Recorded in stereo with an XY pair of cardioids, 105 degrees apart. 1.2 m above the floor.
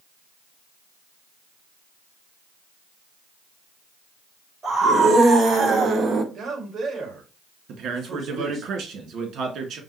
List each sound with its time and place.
4.6 s a scream: 40° right, 3 m; by 6.2 s 50° right, 1.1 m
6.3 s a man speaking: 45° right, 2 m
7.7 s a man speaking: 65° right, 2.0 m